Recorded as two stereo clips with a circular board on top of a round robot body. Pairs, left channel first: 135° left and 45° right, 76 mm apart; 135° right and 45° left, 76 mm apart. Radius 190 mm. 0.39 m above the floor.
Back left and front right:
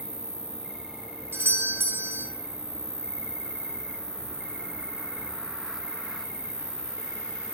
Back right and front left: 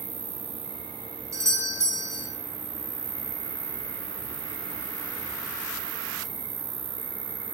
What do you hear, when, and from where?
0.0 s an insect: 35° left, 1.1 m
1.3 s a doorbell: 10° left, 1.8 m